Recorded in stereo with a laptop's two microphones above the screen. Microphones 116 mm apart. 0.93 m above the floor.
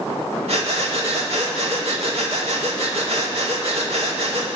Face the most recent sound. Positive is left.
turn(degrees=-65)  # may be behind; listen again after turning